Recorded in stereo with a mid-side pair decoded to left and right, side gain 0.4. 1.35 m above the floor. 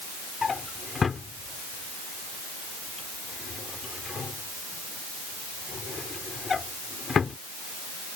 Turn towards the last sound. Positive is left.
turn(degrees=40)